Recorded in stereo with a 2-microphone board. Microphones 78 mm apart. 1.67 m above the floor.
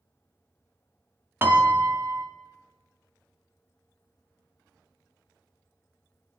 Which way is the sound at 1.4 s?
30° right (ahead or behind).